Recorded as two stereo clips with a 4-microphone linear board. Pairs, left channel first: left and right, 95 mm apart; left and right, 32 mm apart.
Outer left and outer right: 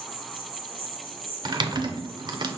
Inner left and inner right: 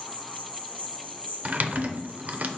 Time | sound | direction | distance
0.0 | an insect | 85° right | 1.1 m
1.4 | typing on a keyboard | 50° right (ahead or behind) | 0.5 m